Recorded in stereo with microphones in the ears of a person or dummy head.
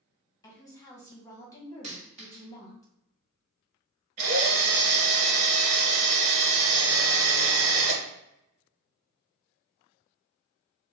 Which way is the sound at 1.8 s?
40° right (ahead or behind).